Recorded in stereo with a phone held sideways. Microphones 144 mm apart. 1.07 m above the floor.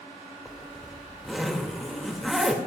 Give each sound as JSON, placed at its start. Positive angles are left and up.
{"t": 0.5, "sound": "a zipper", "side_deg": 0, "distance_m": 2.5}